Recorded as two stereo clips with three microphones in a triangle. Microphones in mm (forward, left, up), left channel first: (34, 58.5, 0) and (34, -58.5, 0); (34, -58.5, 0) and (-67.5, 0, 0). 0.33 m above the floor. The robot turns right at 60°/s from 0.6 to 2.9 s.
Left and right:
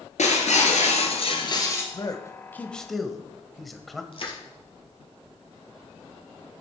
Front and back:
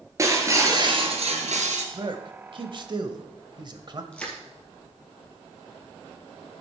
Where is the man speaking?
120° left, 1.2 m; by 4.0 s straight behind, 1.2 m.